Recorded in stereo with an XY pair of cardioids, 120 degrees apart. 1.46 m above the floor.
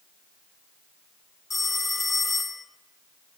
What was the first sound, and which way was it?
A phone ringing, 15° left.